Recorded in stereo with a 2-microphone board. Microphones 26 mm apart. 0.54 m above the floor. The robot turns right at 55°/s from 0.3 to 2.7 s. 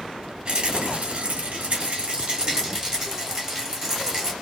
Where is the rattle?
135° right, 1.9 m; by 4.3 s 15° right, 1.9 m.